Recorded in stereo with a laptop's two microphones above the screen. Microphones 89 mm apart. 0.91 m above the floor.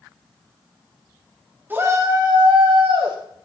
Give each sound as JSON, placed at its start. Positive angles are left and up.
{"t": 1.7, "sound": "a shout", "side_deg": -20, "distance_m": 1.3}